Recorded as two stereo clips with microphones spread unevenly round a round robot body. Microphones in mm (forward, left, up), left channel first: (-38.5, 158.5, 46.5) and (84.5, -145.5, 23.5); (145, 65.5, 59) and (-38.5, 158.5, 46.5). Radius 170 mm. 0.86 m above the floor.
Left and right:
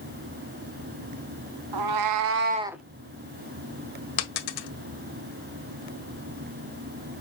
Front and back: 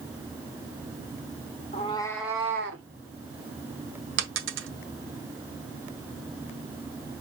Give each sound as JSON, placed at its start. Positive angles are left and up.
{"t": 1.7, "sound": "a cat meowing", "azimuth_deg": -95, "distance_m": 0.8}
{"t": 4.2, "sound": "a dropped coin", "azimuth_deg": 130, "distance_m": 1.6}